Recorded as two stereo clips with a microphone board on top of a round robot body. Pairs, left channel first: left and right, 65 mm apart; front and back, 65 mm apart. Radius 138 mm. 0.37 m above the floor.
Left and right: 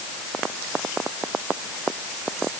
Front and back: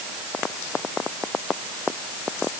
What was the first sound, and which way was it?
Only background noise.